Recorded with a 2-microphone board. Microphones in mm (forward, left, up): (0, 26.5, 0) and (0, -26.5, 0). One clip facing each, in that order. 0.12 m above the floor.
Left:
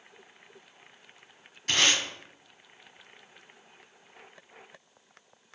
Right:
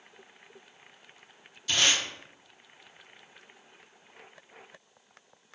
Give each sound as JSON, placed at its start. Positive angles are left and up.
{"t": 1.7, "sound": "tape being pulled", "side_deg": 50, "distance_m": 1.0}